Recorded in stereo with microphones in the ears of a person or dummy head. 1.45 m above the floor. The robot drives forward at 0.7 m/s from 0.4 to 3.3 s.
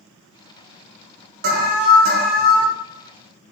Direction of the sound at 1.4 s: 45° right (ahead or behind).